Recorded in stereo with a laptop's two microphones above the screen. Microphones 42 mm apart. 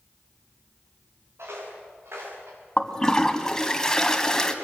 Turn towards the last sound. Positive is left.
turn(degrees=10)  # may be behind; listen again after turning